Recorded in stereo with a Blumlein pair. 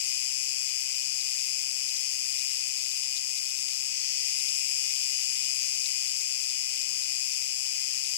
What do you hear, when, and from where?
0.0 s an insect: 55° left, 0.8 m